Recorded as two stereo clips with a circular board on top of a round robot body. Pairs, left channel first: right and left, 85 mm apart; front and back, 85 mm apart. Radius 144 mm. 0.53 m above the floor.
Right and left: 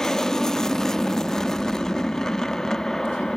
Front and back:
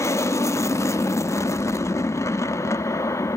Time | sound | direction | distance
0.0 | an aircraft | 10° right | ?